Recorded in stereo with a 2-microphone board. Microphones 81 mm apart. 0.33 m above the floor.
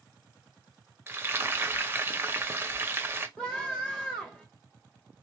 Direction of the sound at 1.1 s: 30° right (ahead or behind).